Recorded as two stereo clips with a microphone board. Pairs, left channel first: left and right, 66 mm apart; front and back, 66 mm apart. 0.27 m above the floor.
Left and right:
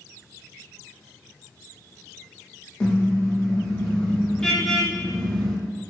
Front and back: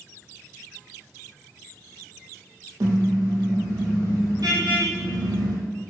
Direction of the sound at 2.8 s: 165° left.